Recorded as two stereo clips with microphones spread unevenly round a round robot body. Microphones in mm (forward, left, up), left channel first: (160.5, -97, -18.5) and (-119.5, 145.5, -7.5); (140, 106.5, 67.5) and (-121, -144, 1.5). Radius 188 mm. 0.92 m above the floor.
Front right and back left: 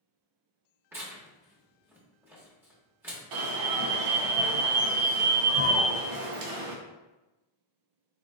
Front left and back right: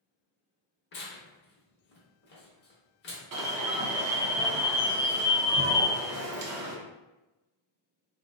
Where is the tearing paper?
60° left, 0.6 m.